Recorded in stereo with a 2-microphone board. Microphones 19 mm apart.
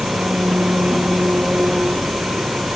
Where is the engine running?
75° right (ahead or behind).